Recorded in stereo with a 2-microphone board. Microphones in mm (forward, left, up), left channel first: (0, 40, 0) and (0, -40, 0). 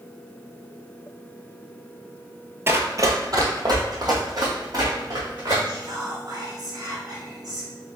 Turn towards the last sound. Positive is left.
turn(degrees=-55)  # may be behind; listen again after turning